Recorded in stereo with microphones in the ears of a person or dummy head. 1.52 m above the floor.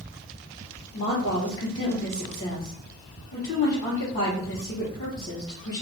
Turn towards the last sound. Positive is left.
turn(degrees=55)  # may be behind; listen again after turning